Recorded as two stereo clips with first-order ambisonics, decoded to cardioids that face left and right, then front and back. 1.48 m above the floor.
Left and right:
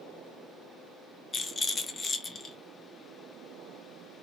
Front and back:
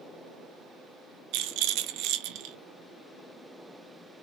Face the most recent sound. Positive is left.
turn(degrees=160)